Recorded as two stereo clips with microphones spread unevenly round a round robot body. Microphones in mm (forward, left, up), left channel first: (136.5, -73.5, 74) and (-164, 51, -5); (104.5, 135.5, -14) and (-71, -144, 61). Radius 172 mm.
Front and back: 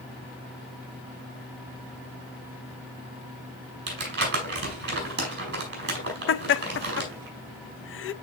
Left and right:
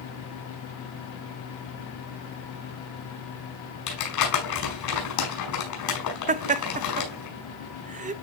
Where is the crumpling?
95° left, 4.5 m.